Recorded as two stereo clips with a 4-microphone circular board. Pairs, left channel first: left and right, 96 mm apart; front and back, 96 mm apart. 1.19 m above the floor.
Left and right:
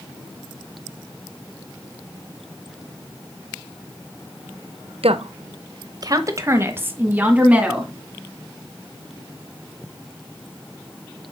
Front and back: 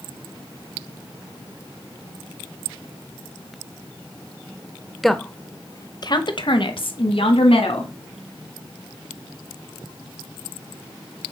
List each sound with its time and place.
5.0 s a woman speaking: 90° right, 0.8 m; by 7.9 s 10° right, 2 m